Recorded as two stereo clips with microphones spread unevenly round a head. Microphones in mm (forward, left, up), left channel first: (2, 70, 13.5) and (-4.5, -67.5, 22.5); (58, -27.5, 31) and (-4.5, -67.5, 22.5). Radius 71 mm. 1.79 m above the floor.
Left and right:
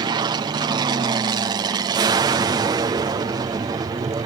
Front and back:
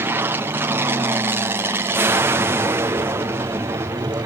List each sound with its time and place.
0.0 s an aircraft: 130° right; by 4.3 s 140° right